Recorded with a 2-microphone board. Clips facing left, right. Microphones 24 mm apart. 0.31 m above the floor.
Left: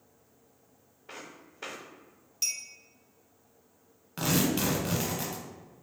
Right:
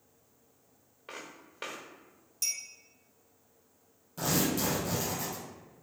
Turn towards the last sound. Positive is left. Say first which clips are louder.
# left 2 dB
turn(degrees=80)